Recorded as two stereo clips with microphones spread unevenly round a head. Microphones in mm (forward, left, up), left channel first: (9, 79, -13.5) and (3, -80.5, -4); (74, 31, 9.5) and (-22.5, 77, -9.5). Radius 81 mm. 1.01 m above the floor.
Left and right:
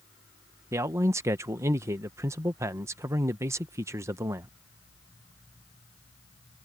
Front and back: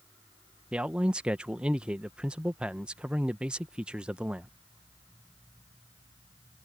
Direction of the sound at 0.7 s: 155° right.